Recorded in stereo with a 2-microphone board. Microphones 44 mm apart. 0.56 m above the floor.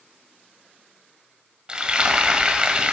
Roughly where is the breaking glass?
I don't hear breaking glass.